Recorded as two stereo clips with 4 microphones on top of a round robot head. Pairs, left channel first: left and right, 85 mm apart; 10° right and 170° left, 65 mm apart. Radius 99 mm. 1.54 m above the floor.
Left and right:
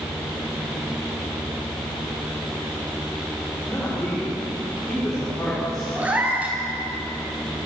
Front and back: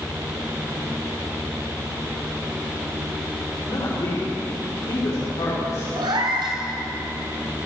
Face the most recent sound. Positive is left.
turn(degrees=-165)